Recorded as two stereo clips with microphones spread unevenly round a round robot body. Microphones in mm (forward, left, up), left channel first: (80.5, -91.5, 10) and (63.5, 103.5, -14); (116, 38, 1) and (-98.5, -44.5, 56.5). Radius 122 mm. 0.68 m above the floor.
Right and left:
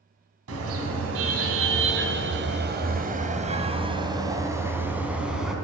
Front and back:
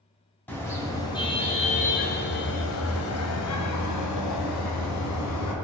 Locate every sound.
0.5 s a car horn: 105° left, 2.5 m; by 5.5 s 5° left, 3 m